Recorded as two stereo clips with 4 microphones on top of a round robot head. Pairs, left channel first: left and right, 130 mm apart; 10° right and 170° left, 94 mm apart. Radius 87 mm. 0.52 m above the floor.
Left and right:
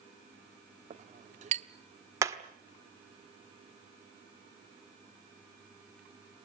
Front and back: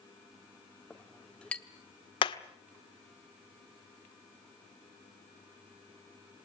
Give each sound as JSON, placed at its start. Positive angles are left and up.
{"t": 0.9, "sound": "a clink", "azimuth_deg": -85, "distance_m": 0.8}
{"t": 2.2, "sound": "hammering", "azimuth_deg": -25, "distance_m": 1.4}